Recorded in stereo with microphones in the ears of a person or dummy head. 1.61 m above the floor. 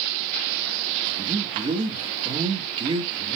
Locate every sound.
1.1 s a man speaking: 25° right (ahead or behind), 2 m